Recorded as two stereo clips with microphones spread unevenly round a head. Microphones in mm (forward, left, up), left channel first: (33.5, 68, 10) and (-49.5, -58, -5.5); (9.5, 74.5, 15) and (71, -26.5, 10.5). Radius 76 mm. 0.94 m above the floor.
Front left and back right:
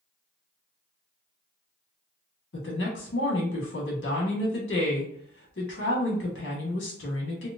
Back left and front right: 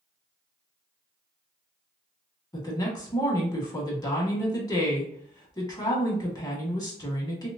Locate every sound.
2.5 s a woman speaking: 65° left, 1.7 m